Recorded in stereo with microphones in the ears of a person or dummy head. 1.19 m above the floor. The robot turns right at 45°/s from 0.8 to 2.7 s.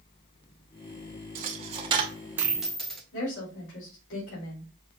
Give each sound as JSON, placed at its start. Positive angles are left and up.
{"t": 1.4, "sound": "a dropped coin", "side_deg": -45, "distance_m": 0.8}
{"t": 3.1, "sound": "a woman speaking", "side_deg": 70, "distance_m": 3.0}